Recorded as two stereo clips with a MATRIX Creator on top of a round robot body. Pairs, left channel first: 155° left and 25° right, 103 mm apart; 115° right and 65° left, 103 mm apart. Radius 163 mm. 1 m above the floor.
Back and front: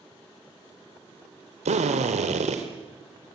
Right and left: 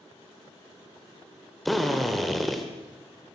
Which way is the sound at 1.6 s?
25° right.